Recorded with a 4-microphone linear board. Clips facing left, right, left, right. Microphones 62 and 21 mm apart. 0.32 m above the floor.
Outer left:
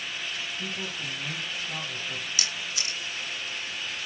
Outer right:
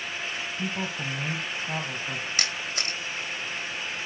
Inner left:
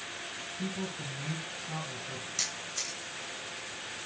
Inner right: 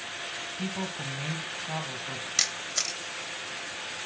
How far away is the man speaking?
About 2 m.